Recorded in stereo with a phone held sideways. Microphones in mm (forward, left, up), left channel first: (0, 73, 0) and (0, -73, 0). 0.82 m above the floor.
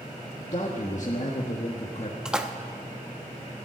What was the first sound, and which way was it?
A man speaking, 45° left (ahead or behind).